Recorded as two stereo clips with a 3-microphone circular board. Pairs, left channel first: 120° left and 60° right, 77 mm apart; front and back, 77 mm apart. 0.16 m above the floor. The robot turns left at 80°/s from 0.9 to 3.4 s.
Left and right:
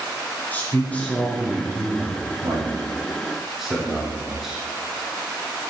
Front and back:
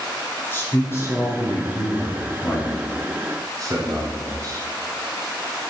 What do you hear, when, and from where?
0.5 s a man speaking: 55° left, 2.5 m; by 4.7 s 145° right, 2.5 m